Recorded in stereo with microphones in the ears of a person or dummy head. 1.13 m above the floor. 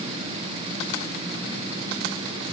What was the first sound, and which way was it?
Only background noise.